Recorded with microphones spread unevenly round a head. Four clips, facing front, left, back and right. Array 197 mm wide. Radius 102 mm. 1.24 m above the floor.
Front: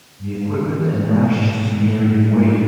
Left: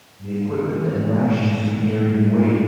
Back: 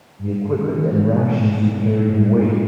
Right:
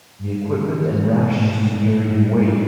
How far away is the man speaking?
About 6.5 m.